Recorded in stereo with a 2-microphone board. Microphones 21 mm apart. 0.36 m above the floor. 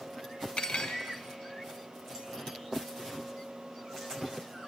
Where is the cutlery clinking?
65° left (ahead or behind), 1.7 m.